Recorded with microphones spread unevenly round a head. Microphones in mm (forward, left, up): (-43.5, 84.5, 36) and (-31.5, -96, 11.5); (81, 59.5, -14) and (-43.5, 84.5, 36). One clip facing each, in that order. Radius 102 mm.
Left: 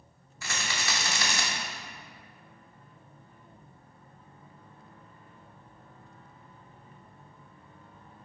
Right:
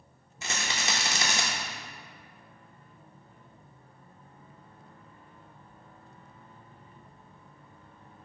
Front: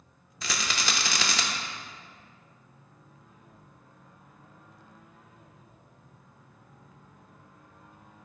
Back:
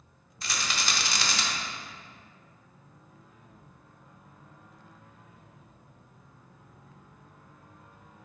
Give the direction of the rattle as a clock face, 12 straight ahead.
12 o'clock.